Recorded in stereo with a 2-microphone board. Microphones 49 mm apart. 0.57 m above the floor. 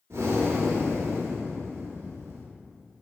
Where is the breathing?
70° right (ahead or behind), 0.5 m.